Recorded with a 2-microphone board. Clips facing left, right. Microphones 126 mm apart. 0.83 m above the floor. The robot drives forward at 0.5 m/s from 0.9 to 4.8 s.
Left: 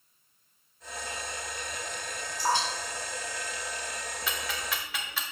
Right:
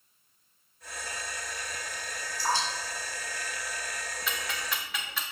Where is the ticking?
Centre (ahead or behind), 1.3 m.